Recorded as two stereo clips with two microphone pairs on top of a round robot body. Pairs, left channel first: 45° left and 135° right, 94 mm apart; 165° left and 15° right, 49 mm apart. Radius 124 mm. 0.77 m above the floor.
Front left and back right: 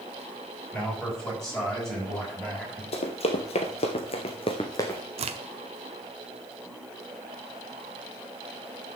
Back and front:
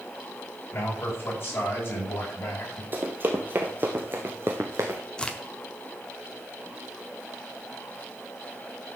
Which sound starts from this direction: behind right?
A crack, at 5.2 s.